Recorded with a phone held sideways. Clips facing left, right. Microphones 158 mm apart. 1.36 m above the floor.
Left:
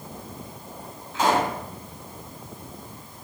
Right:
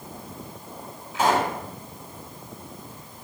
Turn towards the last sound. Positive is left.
turn(degrees=-10)  # may be behind; listen again after turning